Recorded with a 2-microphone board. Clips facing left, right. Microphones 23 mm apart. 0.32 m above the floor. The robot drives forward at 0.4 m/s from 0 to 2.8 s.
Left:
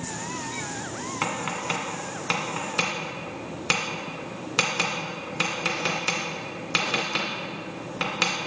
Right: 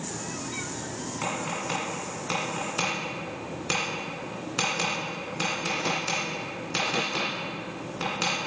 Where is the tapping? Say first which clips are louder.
Left 3 dB; 35° left (ahead or behind), 2.0 m; by 8.4 s 25° left (ahead or behind), 2.5 m.